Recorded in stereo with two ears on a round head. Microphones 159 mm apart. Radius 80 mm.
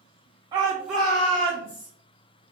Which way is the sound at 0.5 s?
25° right (ahead or behind).